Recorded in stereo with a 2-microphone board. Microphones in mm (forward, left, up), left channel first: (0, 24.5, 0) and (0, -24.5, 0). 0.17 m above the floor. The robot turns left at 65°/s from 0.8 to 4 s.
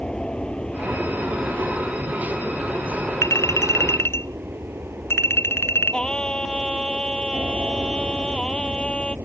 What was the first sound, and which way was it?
An aircraft, 155° left.